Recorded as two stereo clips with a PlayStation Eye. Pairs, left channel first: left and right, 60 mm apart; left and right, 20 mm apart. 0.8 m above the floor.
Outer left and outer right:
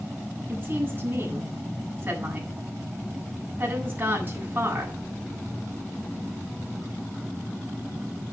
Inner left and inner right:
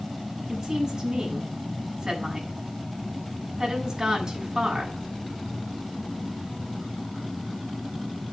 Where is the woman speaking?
35° right (ahead or behind), 7.5 m.